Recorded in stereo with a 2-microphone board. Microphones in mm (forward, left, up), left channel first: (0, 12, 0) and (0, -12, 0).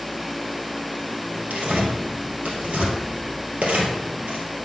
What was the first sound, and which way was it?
Tearing paper, 75° right (ahead or behind).